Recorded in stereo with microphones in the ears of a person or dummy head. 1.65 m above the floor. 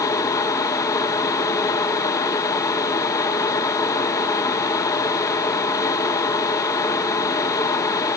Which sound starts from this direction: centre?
A fan, at 0.0 s.